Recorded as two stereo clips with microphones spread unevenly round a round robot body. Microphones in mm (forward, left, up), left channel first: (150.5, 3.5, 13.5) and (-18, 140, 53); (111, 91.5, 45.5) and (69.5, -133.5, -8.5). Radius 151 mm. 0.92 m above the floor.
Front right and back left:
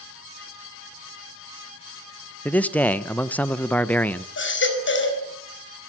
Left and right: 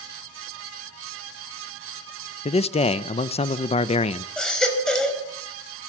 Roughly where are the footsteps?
I don't hear footsteps.